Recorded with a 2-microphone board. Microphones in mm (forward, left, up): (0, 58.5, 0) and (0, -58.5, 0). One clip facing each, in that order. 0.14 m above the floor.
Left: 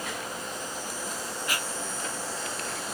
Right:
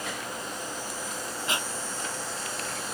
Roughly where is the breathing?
Right.